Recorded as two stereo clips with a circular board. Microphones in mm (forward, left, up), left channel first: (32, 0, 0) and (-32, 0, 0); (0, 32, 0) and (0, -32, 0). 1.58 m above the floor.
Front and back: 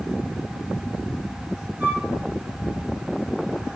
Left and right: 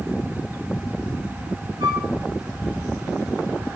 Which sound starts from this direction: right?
A flute, at 1.8 s.